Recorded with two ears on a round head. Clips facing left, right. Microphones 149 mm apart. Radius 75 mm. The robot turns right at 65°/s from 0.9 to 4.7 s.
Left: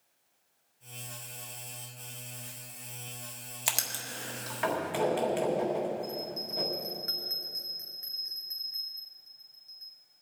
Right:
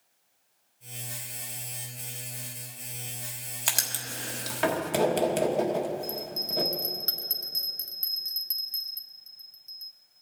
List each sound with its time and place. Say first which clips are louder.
3.7 s writing: right 1 dB; 5° left (ahead or behind), 1.4 m; by 6.7 s 55° right (ahead or behind), 1.4 m
6.0 s a bell: right 1 dB; 40° right (ahead or behind), 1.1 m